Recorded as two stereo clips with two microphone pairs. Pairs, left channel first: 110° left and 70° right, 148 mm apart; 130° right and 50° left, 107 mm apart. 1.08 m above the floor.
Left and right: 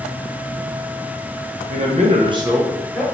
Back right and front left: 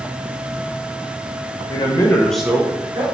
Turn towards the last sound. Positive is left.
turn(degrees=35)